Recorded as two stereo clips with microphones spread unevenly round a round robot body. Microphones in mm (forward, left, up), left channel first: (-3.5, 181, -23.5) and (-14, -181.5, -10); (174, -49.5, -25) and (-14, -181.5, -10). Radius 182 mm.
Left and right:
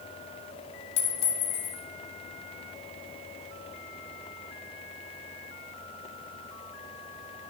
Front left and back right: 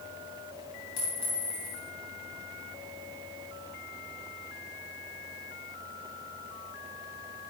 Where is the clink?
95° left, 2.5 m.